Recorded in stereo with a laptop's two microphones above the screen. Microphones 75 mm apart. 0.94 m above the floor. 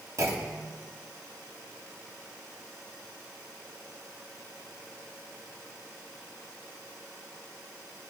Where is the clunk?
50° right (ahead or behind), 1.4 m.